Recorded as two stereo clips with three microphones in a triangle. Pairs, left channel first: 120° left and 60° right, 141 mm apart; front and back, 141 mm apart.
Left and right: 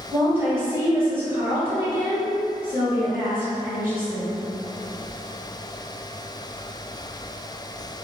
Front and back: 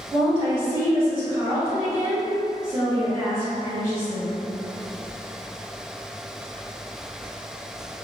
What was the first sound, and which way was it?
A woman speaking, 120° right.